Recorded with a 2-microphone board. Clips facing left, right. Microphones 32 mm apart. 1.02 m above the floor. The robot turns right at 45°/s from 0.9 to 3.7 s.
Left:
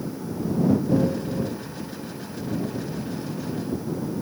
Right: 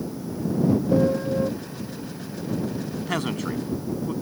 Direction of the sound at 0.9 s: 30° right (ahead or behind).